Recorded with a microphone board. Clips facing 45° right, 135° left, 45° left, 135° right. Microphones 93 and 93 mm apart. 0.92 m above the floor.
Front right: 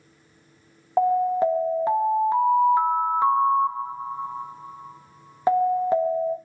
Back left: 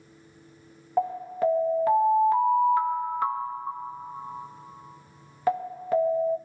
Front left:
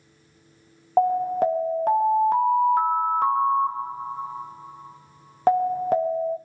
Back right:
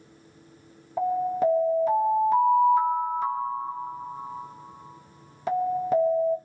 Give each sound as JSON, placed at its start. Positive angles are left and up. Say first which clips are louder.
{"t": 1.0, "sound": "an alarm", "louder": "front right 6 dB, front left 4 dB", "azimuth_deg": 20, "distance_m": 0.6}